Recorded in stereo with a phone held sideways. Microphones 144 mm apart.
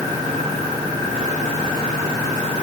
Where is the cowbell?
No cowbell in this recording.